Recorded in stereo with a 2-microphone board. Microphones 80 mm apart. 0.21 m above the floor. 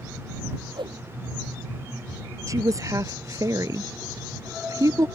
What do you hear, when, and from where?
0.8 s a whoosh: 75° right (ahead or behind)
2.5 s a woman speaking: 45° right (ahead or behind)